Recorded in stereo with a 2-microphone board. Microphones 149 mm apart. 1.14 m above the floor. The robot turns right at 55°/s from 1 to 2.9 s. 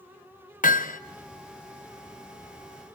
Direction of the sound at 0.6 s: 65° left (ahead or behind).